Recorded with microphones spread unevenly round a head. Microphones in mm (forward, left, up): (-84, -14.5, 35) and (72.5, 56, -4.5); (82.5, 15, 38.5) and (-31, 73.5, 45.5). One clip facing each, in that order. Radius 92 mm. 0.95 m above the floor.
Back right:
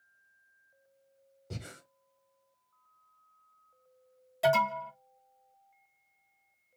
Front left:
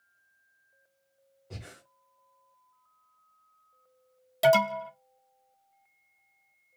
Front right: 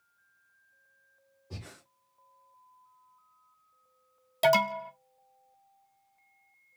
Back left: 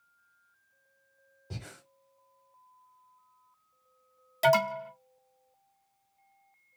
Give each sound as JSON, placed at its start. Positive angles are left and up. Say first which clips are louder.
{"t": 1.5, "sound": "breathing", "louder": "back right 2 dB, back left 2 dB", "azimuth_deg": -165, "distance_m": 1.0}
{"t": 4.4, "sound": "an alarm", "louder": "front left 5 dB, even", "azimuth_deg": 35, "distance_m": 1.1}